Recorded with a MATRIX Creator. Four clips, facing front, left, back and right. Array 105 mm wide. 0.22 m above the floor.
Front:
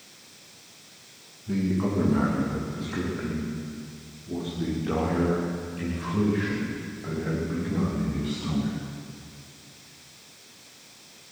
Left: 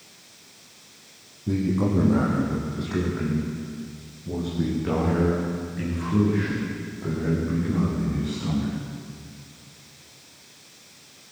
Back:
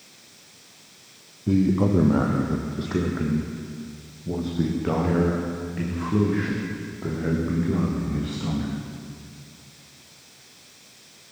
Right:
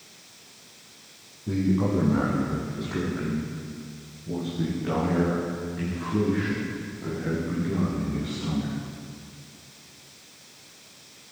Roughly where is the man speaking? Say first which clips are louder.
Left 1 dB, back 6 dB; behind.